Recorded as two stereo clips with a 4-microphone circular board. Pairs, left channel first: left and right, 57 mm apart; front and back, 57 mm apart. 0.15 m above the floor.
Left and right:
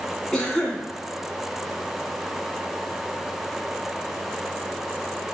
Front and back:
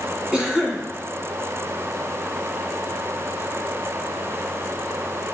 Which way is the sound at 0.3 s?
140° left.